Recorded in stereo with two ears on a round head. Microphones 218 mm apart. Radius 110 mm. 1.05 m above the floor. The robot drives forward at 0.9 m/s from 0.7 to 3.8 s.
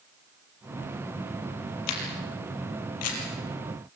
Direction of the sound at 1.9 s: 80° left.